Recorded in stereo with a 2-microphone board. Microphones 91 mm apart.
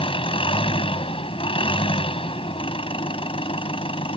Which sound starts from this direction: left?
An engine running, at 0.0 s.